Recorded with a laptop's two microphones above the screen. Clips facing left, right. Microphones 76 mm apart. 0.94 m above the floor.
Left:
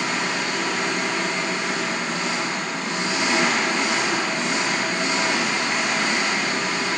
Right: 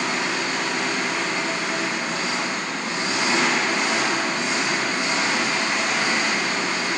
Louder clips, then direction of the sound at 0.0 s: Even; 10° right (ahead or behind).